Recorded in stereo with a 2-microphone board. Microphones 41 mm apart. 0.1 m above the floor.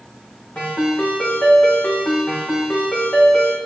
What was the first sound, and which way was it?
A ringtone, 40° left (ahead or behind).